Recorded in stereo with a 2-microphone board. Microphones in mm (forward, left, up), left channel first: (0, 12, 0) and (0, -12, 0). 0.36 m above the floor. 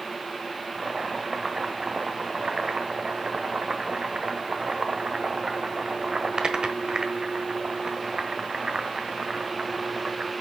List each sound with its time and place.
0.8 s boiling: 30° right (ahead or behind), 1.2 m